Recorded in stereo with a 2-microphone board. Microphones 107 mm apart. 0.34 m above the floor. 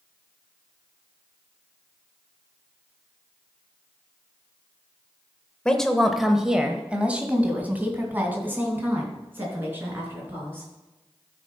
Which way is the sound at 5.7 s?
10° left (ahead or behind).